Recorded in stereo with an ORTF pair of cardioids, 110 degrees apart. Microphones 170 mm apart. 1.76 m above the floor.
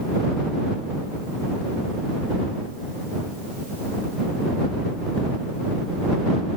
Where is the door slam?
I don't hear a door slam.